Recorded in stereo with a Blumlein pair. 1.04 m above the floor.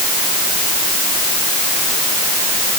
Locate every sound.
Only background noise.